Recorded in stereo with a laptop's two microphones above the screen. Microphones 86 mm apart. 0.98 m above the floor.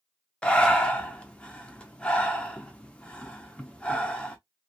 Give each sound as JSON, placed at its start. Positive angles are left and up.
{"t": 0.4, "sound": "breathing", "side_deg": 10, "distance_m": 0.5}